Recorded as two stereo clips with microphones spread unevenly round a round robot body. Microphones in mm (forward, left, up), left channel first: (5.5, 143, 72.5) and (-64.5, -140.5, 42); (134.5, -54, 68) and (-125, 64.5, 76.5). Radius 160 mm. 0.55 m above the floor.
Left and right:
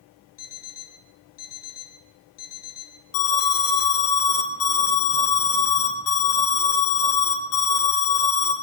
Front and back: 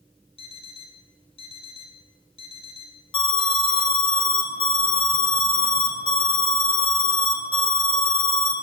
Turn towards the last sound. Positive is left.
turn(degrees=45)